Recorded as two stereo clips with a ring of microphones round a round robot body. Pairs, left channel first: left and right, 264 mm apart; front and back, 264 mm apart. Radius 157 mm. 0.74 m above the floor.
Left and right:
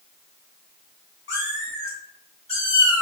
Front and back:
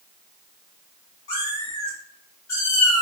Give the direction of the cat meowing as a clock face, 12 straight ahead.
10 o'clock.